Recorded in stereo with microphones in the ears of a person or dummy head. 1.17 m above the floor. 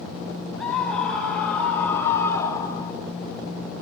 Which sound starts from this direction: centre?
A scream, at 0.6 s.